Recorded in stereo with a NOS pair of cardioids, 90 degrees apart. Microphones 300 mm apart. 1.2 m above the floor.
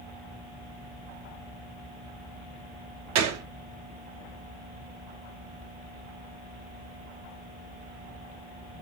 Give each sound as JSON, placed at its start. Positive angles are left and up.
{"t": 3.1, "sound": "a gunshot", "azimuth_deg": -65, "distance_m": 1.0}